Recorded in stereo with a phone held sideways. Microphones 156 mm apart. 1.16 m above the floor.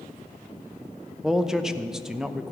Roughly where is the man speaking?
Centre.